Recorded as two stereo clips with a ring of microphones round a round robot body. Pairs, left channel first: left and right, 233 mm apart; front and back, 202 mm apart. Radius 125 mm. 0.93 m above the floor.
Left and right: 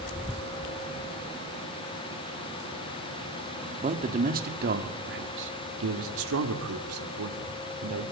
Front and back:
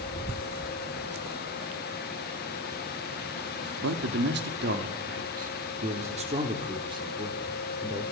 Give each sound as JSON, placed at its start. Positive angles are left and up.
{"t": 3.8, "sound": "a man speaking", "azimuth_deg": -150, "distance_m": 2.5}